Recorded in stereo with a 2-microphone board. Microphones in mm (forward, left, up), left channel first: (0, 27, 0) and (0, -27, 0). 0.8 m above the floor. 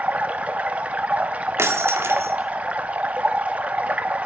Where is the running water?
25° right (ahead or behind), 0.8 m.